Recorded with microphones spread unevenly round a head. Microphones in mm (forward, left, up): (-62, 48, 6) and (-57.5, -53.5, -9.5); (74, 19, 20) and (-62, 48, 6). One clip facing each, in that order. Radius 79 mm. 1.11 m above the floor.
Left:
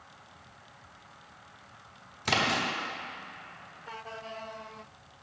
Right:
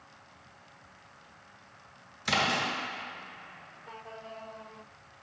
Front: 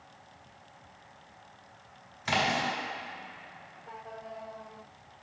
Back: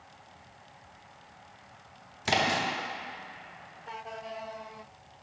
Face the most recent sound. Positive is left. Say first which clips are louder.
# even, back 1 dB
turn(degrees=115)